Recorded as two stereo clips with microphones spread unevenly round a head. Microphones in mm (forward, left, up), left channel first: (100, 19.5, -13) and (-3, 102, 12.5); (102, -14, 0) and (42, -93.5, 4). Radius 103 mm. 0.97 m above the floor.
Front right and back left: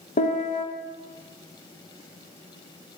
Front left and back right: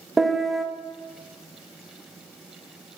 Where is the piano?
35° right, 1.3 m.